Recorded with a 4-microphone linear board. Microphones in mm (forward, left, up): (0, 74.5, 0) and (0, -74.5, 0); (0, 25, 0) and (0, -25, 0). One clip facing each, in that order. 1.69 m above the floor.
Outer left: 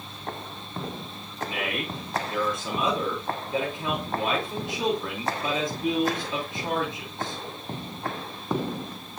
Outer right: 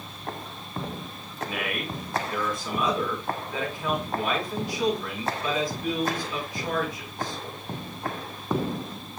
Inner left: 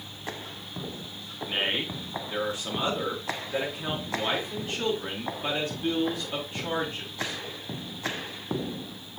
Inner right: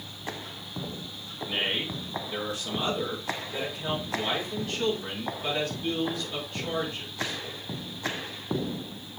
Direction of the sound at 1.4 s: 25° left (ahead or behind).